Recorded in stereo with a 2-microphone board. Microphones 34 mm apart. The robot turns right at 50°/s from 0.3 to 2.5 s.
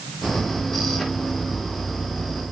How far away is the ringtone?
No ringtone in this recording.